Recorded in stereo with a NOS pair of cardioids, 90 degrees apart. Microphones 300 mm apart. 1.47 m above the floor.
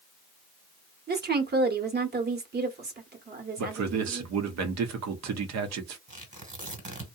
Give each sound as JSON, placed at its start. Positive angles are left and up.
{"t": 1.1, "sound": "a woman speaking", "azimuth_deg": -35, "distance_m": 1.0}
{"t": 3.6, "sound": "a man speaking", "azimuth_deg": -60, "distance_m": 0.8}
{"t": 6.1, "sound": "tearing paper", "azimuth_deg": -25, "distance_m": 1.4}